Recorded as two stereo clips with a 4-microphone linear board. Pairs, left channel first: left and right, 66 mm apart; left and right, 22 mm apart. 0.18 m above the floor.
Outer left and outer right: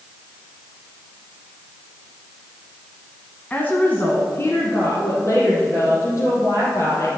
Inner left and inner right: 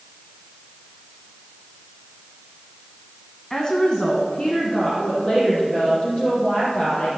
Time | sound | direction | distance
3.5 | a woman speaking | 25° left (ahead or behind) | 1.2 m